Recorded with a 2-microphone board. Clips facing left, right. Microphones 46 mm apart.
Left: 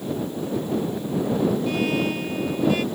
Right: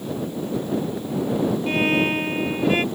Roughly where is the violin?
Right.